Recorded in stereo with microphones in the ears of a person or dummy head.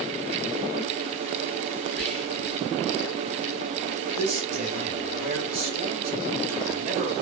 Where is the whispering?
5° left (ahead or behind), 1.4 m.